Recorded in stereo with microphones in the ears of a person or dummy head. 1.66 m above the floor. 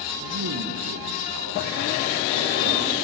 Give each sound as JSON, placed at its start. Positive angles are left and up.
{"t": 0.2, "sound": "a man speaking", "side_deg": -70, "distance_m": 1.6}